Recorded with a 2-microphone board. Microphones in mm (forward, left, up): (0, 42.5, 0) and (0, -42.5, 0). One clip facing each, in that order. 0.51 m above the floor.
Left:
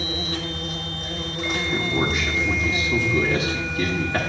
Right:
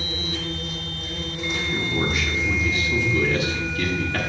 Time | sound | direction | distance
0.0 | an insect | 70° left (ahead or behind) | 1.3 m
1.5 | a man speaking | 25° left (ahead or behind) | 1.2 m